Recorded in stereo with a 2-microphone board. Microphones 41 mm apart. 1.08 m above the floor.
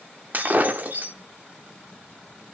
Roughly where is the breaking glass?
Right.